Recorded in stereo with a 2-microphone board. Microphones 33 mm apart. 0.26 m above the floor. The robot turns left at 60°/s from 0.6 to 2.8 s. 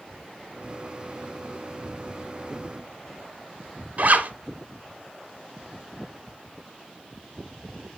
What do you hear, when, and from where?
4.0 s a zipper: 55° right (ahead or behind), 1.0 m